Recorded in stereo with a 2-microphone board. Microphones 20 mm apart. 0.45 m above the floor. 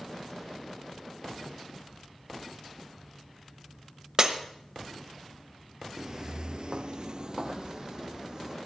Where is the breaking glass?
40° right (ahead or behind), 1.2 m.